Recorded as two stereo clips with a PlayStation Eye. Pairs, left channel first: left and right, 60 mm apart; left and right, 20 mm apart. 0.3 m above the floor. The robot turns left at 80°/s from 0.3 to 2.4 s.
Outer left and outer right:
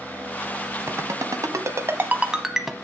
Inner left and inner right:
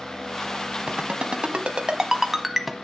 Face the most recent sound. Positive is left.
turn(degrees=-10)  # may be behind; listen again after turning